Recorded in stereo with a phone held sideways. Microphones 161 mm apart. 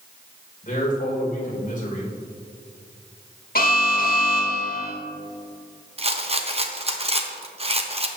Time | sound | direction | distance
0.6 | a man speaking | 55° left (ahead or behind) | 3 m
3.5 | an alarm | 65° left (ahead or behind) | 1.7 m
6.0 | a rattle | 40° right (ahead or behind) | 0.9 m